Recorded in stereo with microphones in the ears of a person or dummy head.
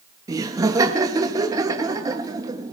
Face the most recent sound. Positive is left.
turn(degrees=-20)  # may be behind; listen again after turning